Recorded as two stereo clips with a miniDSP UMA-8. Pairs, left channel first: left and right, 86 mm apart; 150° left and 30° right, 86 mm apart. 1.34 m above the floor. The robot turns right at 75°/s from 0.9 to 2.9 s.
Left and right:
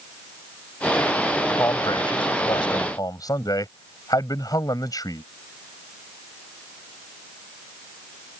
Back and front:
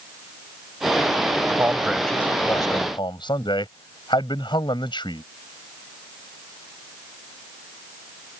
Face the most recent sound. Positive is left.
turn(degrees=130)